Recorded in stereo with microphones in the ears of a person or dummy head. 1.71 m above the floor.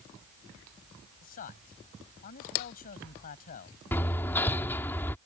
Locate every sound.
1.2 s a man speaking: 45° left (ahead or behind)
3.9 s hammering: 15° left (ahead or behind)